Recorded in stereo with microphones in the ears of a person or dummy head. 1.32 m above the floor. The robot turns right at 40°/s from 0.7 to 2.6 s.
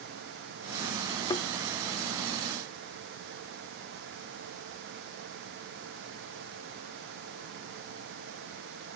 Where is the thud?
20° left (ahead or behind); by 1.5 s 25° left (ahead or behind).